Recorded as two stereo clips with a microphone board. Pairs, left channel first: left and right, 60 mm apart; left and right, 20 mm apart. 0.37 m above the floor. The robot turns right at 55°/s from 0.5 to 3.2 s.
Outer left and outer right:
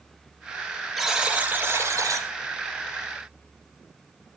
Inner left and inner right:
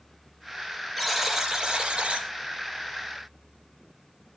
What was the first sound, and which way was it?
A buzzer, 175° right.